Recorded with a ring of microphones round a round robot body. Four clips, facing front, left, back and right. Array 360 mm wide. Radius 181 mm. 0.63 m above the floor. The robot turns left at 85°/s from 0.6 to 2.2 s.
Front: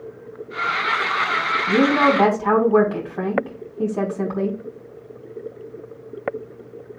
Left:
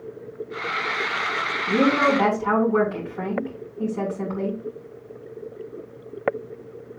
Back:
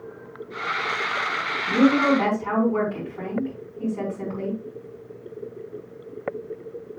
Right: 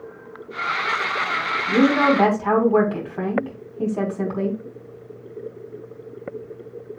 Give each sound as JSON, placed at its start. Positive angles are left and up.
{"t": 1.7, "sound": "a woman speaking", "azimuth_deg": 10, "distance_m": 4.0}